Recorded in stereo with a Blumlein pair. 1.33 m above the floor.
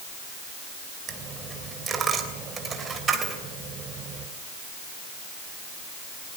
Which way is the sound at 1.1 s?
20° right.